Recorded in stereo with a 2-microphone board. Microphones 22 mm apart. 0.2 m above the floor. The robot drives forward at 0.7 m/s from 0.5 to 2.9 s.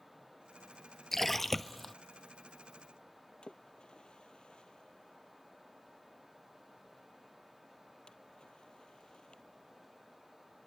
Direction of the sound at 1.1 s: 15° left (ahead or behind).